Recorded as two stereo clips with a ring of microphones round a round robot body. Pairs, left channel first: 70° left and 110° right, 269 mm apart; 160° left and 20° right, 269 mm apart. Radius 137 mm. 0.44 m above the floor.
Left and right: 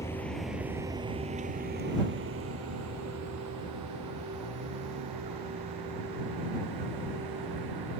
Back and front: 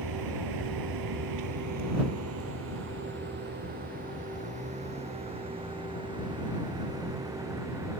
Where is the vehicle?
15° right; by 8.0 s 105° right.